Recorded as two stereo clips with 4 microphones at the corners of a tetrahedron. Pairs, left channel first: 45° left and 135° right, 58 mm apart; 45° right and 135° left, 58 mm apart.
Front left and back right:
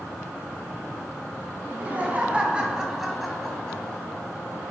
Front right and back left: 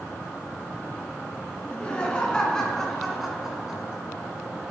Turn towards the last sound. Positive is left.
turn(degrees=85)